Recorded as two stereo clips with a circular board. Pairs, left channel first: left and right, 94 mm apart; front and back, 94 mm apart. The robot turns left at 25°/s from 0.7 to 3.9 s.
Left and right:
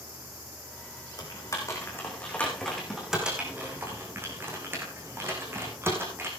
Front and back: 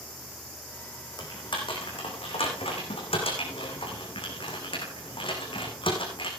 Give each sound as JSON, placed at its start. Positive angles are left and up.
{"t": 1.2, "sound": "typing on a keyboard", "azimuth_deg": 45, "distance_m": 4.0}